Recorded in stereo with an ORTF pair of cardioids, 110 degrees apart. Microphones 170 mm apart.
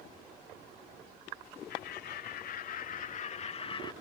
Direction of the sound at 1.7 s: 65° left.